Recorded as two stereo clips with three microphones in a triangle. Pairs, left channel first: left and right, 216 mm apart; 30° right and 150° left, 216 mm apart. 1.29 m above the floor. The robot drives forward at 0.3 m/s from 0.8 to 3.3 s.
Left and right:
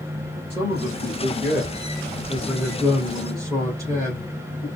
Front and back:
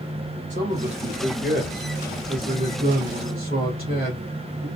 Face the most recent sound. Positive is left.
turn(degrees=-160)